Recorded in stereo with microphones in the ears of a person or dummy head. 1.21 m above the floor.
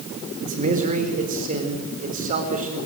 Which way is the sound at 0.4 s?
40° right (ahead or behind).